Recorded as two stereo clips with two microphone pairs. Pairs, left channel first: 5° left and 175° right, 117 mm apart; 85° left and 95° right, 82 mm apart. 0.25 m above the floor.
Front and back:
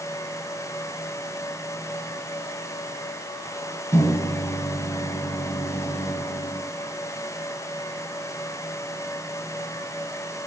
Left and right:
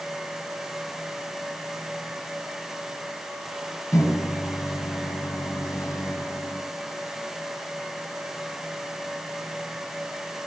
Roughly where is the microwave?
Ahead left.